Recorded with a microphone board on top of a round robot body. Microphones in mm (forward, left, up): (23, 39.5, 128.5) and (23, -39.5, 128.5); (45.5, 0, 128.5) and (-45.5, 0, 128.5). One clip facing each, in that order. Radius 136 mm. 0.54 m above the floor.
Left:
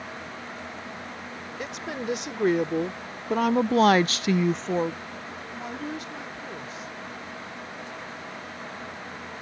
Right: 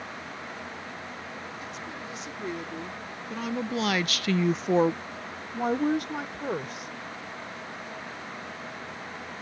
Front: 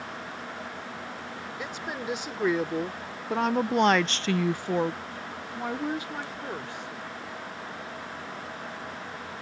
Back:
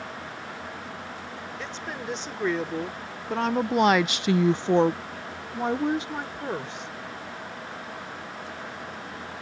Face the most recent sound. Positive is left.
turn(degrees=-110)